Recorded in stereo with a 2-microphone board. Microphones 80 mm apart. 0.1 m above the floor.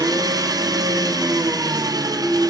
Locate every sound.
0.0 s an engine running: 50° right (ahead or behind), 1.0 m